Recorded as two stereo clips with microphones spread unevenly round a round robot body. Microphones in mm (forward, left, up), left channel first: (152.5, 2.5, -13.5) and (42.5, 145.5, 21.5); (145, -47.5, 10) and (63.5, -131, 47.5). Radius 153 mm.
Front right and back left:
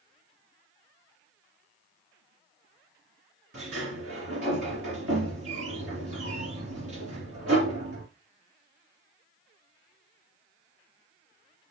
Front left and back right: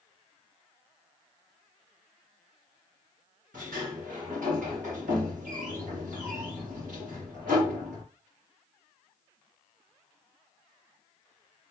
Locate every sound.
3.5 s a sliding door: straight behind, 3 m